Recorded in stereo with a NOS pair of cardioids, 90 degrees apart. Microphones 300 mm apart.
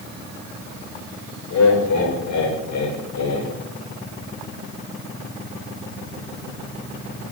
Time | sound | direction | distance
1.5 | laughter | 65° left | 7.5 m